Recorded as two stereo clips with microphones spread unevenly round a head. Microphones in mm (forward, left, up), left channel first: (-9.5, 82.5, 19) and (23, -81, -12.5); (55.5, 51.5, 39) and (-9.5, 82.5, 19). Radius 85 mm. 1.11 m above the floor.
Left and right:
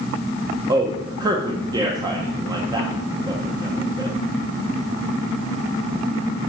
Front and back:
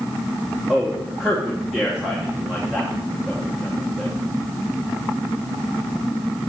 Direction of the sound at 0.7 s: 135° right.